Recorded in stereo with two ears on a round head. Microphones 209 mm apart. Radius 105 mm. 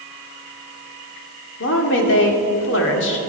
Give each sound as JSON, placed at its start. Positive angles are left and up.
{"t": 1.6, "sound": "a woman speaking", "side_deg": 55, "distance_m": 2.0}